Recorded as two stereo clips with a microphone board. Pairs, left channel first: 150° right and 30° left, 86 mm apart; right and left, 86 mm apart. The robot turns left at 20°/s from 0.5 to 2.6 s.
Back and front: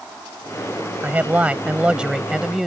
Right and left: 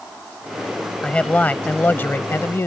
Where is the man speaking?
25° right; by 2.7 s 55° right.